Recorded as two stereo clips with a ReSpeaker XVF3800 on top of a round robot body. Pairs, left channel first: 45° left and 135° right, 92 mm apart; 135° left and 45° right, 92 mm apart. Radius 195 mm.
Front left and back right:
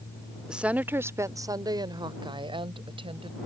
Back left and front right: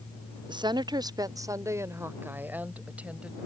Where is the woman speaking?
55° right; by 3.4 s 125° right.